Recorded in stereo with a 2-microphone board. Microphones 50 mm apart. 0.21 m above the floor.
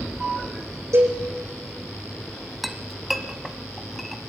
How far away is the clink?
About 0.9 m.